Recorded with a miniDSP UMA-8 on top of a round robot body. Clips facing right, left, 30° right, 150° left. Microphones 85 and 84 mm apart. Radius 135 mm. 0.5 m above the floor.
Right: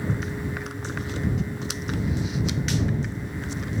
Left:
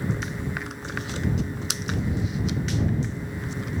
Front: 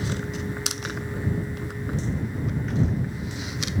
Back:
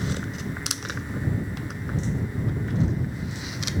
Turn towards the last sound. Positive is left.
No sound to turn to.